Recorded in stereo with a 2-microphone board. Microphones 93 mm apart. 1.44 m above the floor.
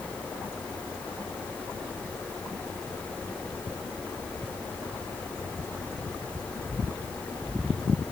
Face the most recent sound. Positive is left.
No sound to turn to.